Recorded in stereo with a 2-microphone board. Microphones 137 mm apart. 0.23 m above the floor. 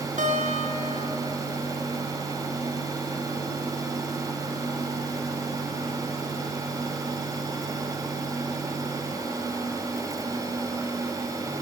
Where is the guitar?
65° right (ahead or behind), 3.5 m.